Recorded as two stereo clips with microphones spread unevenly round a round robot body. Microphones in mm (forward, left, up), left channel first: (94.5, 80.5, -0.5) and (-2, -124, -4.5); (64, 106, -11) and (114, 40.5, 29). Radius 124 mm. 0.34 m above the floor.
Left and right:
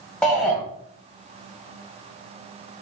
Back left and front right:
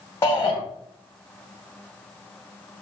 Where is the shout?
150° left, 1.9 m.